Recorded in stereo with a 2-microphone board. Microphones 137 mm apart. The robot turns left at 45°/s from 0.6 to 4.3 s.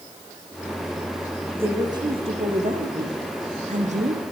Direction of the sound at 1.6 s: 15° right.